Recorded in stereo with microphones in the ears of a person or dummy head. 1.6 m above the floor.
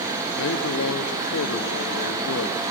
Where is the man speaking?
70° left (ahead or behind), 1.3 m.